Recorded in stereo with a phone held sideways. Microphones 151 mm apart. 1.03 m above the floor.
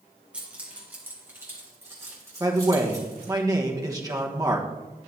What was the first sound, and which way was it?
Keys jangling, 10° right (ahead or behind).